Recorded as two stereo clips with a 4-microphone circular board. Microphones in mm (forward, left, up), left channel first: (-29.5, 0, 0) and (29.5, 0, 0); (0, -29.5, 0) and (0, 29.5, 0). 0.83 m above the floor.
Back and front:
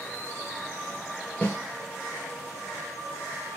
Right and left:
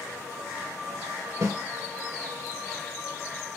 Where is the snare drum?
110° left, 3 m.